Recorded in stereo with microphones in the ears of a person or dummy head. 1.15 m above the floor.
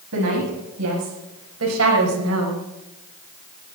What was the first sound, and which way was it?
A woman speaking, 80° right.